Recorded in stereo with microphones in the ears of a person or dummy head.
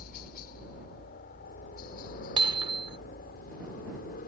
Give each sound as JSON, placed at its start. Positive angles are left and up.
{"t": 0.0, "sound": "a helicopter", "side_deg": 50}
{"t": 2.4, "sound": "hammering", "side_deg": -25}